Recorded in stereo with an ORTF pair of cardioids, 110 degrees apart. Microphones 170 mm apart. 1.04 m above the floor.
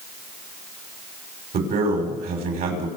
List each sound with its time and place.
1.5 s a man speaking: 60° right, 6 m